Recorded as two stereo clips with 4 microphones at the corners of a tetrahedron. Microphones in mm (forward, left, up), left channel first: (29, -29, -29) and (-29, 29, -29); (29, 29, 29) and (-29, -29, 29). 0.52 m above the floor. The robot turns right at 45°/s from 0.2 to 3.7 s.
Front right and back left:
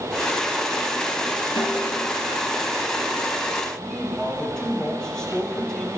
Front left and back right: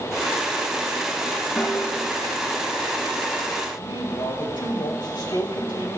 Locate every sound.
1.6 s a snare drum: 50° right, 3.5 m; by 2.0 s 30° right, 3.5 m
3.8 s a man speaking: 35° left, 3 m